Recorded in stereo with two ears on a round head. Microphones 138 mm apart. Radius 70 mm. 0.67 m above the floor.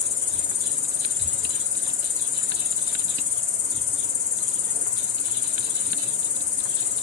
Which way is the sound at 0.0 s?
50° left (ahead or behind).